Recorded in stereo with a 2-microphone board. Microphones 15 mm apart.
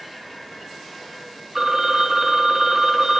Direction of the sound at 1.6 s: 35° right (ahead or behind).